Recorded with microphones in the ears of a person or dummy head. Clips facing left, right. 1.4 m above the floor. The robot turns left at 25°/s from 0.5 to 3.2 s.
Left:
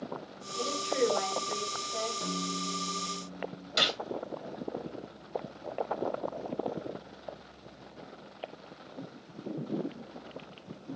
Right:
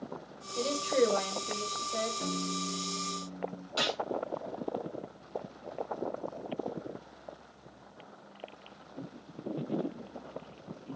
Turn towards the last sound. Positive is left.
turn(degrees=20)  # may be behind; listen again after turning